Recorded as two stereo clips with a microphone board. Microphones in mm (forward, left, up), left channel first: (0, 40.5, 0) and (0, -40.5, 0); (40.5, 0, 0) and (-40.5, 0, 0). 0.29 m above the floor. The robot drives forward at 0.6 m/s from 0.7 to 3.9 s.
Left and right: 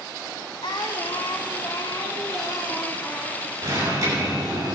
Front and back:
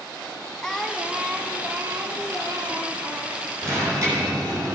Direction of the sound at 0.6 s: 80° left.